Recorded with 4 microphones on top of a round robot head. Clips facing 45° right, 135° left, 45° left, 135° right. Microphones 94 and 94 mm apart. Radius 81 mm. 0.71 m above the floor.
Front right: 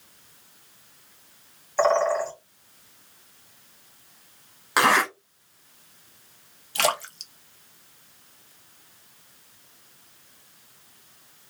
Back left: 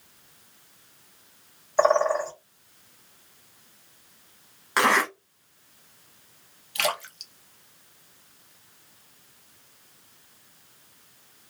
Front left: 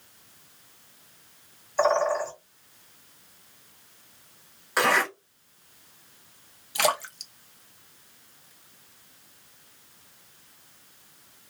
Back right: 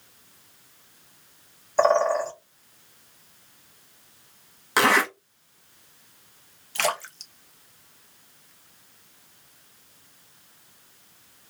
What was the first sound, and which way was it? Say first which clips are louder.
A bird: even, back right 3 dB; 160° right.